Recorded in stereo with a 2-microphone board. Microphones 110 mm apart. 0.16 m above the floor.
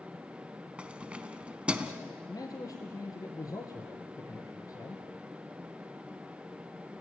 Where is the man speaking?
35° left (ahead or behind), 2.5 m.